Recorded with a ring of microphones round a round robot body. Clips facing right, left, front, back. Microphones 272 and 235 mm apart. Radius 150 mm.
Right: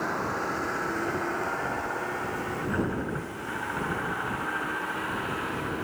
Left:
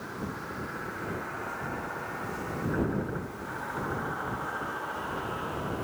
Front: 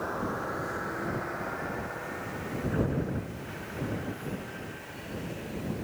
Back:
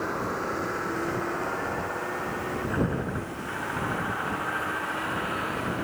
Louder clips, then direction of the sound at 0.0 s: Right 6 dB, back 3 dB; 115° right.